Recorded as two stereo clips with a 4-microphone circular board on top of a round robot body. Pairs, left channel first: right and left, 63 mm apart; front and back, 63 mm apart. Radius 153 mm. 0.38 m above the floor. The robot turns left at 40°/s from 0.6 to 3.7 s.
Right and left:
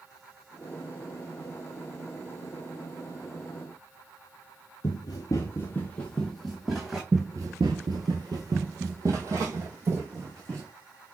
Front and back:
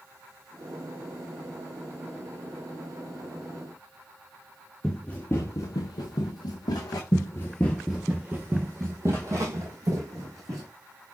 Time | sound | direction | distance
4.8 | running footsteps | 90° right | 0.7 m
7.1 | running footsteps | 30° left | 0.5 m